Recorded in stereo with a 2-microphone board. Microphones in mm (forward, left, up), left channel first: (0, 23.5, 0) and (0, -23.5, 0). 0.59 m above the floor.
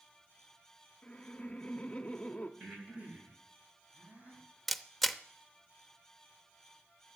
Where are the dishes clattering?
I don't hear dishes clattering.